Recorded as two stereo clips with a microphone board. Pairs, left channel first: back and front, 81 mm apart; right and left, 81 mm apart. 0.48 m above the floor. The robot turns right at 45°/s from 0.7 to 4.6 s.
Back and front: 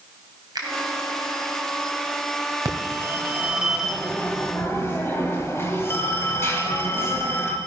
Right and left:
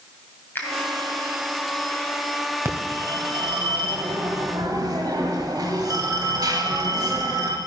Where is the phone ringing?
35° left, 2.0 m; by 7.6 s 120° left, 2.0 m.